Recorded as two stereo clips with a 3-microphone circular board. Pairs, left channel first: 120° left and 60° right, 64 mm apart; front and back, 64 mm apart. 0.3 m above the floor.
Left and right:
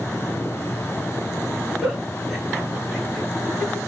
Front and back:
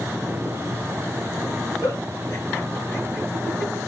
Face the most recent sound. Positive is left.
turn(degrees=25)